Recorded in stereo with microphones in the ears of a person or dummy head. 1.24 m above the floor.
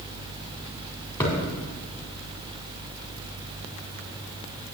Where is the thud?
10° left (ahead or behind), 2.5 m.